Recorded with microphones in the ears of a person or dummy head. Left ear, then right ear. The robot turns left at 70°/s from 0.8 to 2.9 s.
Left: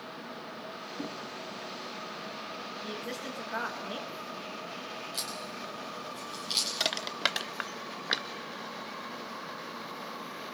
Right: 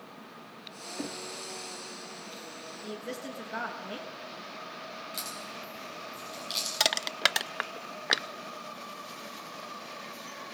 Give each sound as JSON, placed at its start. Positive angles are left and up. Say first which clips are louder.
{"t": 1.0, "sound": "knocking", "louder": "right 2 dB", "side_deg": -15, "distance_m": 0.7}
{"t": 2.8, "sound": "a woman speaking", "louder": "right 1 dB", "side_deg": 5, "distance_m": 2.0}
{"t": 5.1, "sound": "a crack", "louder": "left 2 dB", "side_deg": -10, "distance_m": 7.0}
{"t": 6.8, "sound": "crushing", "louder": "right 3 dB", "side_deg": -20, "distance_m": 0.5}